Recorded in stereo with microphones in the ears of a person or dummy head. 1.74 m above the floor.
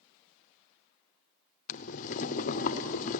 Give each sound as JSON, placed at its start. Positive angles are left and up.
{"t": 1.7, "sound": "boiling", "side_deg": 45, "distance_m": 0.8}